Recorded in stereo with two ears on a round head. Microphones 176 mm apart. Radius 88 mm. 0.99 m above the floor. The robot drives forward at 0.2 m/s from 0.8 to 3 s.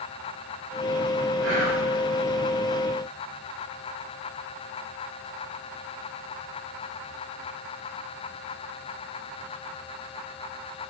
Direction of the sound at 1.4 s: 65° right (ahead or behind).